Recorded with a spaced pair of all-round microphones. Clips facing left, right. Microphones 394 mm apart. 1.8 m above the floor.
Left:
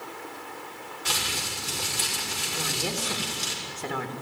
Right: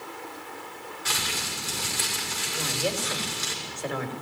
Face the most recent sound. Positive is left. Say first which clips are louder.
# right 3 dB
turn(degrees=55)  # may be behind; listen again after turning